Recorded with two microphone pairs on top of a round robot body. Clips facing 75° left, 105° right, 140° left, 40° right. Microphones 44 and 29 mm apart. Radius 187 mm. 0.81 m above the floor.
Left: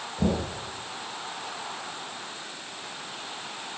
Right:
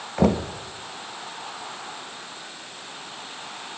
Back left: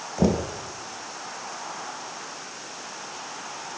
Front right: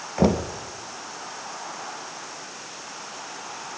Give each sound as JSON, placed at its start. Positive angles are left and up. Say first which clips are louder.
{"t": 0.2, "sound": "knocking", "louder": "right 6 dB, front right 2 dB", "azimuth_deg": -100, "distance_m": 1.0}